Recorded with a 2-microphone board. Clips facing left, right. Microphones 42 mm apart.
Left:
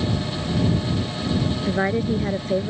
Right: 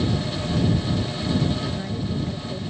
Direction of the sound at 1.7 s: 55° left (ahead or behind).